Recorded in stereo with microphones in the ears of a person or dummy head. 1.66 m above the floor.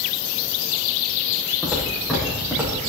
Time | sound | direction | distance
1.6 | footsteps | 10° left (ahead or behind) | 4.5 m